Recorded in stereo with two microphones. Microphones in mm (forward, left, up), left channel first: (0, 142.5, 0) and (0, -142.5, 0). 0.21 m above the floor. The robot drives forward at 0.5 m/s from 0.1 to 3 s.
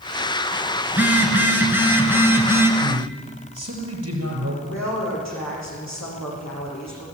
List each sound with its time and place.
0.9 s a phone buzzing: 5° right (ahead or behind), 3 m; by 2.7 s 10° right (ahead or behind), 2 m
2.8 s a man speaking: 55° right (ahead or behind), 6.5 m
4.6 s a woman speaking: 80° left, 9.5 m